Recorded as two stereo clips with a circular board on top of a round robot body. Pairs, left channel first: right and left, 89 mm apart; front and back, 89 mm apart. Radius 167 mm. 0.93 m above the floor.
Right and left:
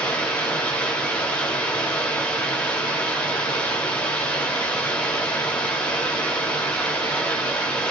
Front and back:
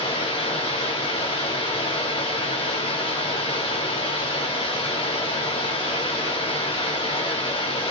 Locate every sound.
0.0 s running water: 15° right, 1.4 m